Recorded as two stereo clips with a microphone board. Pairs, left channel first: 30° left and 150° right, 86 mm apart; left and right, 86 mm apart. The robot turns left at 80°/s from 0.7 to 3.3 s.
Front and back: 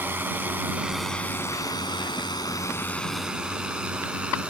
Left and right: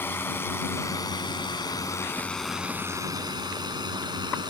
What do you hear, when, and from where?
0.0 s a drone: 150° left; by 4.5 s 75° right